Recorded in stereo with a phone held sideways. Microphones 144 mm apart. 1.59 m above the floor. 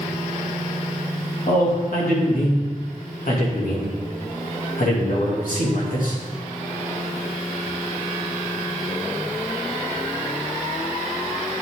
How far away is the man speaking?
About 2.5 m.